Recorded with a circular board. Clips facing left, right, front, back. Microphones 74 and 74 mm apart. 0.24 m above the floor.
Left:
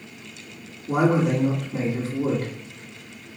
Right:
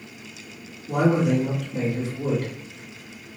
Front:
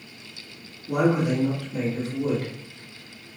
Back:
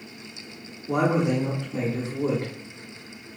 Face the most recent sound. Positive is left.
turn(degrees=125)